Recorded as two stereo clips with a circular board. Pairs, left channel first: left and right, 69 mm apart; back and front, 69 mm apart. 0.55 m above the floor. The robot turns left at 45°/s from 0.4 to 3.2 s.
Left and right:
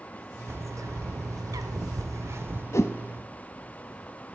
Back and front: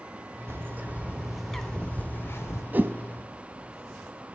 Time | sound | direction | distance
0.5 | a bird | 45° right | 0.8 m
2.7 | a whoosh | 60° left | 0.6 m